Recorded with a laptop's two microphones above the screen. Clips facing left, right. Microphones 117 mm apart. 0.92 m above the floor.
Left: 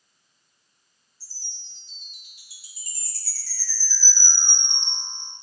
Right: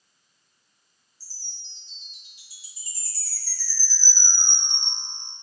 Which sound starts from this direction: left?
A chime, at 1.2 s.